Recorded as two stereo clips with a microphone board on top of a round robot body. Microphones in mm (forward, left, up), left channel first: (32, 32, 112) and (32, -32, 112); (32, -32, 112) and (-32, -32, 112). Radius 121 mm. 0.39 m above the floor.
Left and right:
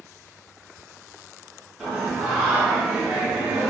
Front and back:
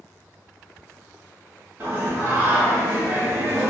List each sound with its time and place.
1.8 s singing: 175° right, 1.3 m